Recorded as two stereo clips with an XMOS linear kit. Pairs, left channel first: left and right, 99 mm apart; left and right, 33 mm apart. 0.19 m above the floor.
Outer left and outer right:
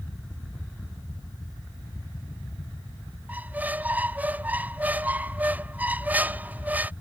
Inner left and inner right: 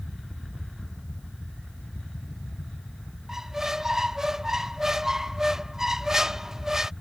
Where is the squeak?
15° right (ahead or behind).